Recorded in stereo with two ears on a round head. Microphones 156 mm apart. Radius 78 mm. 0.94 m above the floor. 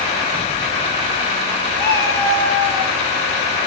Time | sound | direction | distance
1.8 | a cat meowing | 10° left (ahead or behind) | 5 m